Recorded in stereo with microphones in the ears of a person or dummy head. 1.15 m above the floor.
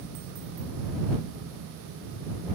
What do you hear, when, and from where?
Only background noise.